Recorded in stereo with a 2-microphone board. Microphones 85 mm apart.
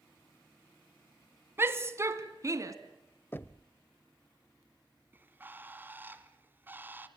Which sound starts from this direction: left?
Knocking, at 3.3 s.